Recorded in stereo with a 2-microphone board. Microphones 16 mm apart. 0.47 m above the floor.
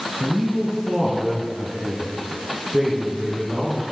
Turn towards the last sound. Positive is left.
turn(degrees=-25)  # may be behind; listen again after turning